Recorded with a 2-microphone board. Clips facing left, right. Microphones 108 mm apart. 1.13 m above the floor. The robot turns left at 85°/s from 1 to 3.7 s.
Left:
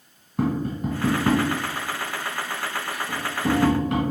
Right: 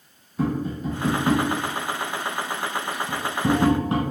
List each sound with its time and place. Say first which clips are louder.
0.4 s tapping: left 1 dB; 55° left (ahead or behind), 1.6 m; by 4.0 s 30° right (ahead or behind), 1.6 m